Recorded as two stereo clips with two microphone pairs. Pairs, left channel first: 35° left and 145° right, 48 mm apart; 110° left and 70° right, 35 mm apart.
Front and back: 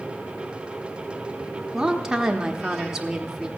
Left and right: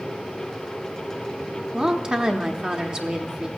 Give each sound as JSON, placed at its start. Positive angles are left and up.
{"t": 1.7, "sound": "a woman speaking", "azimuth_deg": -85, "distance_m": 0.9}